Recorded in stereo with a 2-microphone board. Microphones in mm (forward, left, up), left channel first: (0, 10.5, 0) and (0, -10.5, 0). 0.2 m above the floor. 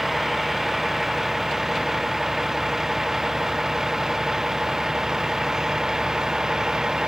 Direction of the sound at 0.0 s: 10° right (ahead or behind).